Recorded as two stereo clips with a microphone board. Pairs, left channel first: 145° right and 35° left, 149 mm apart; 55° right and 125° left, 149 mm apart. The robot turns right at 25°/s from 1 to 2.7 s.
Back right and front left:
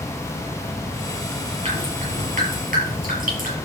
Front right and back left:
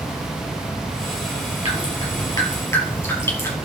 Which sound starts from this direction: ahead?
Dripping, at 1.6 s.